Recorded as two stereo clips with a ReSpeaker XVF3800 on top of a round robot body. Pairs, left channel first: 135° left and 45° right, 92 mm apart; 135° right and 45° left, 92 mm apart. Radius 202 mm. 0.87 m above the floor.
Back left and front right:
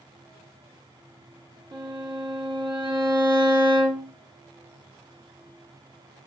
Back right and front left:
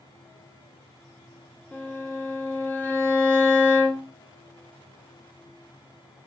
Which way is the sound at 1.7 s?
70° right.